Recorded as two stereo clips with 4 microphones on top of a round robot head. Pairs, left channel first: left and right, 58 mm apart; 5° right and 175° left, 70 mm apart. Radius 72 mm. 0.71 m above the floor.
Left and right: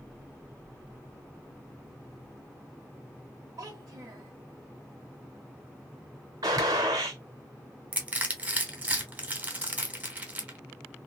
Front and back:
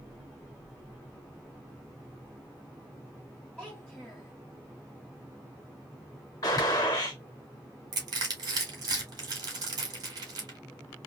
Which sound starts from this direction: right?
A child speaking, at 3.6 s.